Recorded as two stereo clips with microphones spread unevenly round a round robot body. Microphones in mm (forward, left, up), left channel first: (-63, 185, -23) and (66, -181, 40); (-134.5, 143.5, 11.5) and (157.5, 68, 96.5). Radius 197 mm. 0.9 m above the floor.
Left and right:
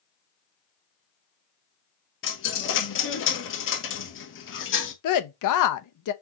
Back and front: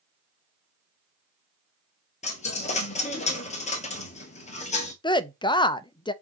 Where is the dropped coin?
90° left, 0.9 m.